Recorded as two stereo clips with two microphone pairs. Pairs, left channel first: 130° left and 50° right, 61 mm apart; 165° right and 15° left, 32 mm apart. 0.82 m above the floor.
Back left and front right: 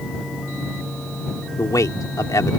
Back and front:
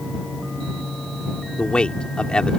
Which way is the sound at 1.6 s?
140° left.